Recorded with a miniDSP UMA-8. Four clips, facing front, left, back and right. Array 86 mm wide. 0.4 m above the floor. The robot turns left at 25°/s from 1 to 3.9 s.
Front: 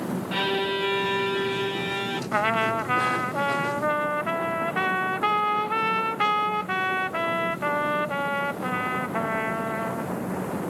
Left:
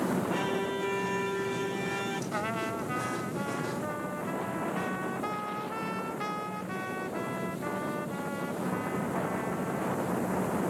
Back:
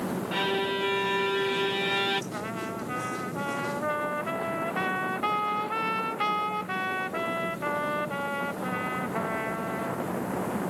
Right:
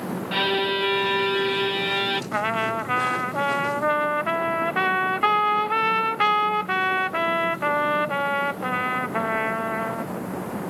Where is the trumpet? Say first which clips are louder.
Right 10 dB, front 10 dB; 30° right; by 10.1 s 70° right.